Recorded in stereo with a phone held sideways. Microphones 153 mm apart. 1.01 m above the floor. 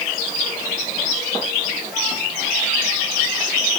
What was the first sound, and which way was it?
Only background noise.